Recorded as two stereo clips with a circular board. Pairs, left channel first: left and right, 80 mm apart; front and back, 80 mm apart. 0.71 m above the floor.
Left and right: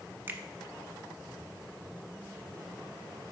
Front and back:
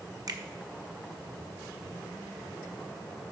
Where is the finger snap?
150° right, 0.8 m.